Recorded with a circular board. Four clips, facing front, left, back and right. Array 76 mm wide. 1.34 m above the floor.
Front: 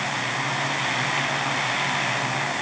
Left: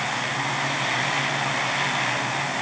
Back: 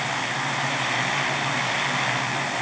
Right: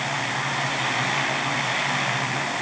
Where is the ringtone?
No ringtone in this recording.